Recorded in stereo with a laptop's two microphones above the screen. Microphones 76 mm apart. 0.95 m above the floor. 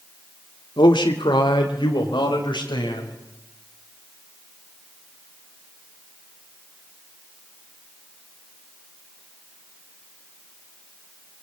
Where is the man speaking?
80° left, 1.8 m; by 3.2 s 85° left, 5 m.